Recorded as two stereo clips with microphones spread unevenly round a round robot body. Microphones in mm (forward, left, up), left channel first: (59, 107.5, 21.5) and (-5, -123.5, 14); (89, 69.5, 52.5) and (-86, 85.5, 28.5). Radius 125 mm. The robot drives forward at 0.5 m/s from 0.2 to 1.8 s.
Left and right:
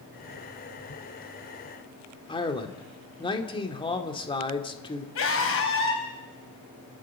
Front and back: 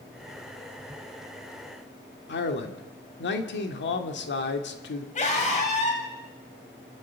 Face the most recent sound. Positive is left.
turn(degrees=45)